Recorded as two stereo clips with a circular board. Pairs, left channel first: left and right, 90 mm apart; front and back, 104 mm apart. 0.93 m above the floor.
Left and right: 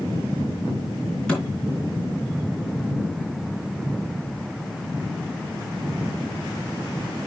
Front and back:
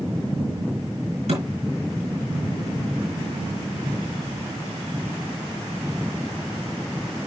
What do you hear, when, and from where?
1.3 s a thud: 170° left, 4.5 m